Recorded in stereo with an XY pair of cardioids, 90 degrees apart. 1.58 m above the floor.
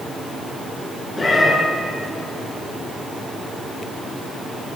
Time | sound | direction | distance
1.2 | a cat meowing | 20° left | 8.5 m